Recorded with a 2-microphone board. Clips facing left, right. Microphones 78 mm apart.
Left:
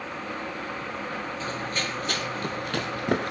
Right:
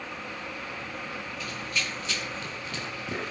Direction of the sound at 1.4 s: 35° left (ahead or behind).